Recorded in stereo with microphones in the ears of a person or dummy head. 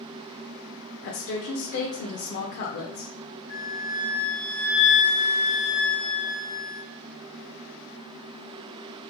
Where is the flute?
35° right (ahead or behind), 1.6 m.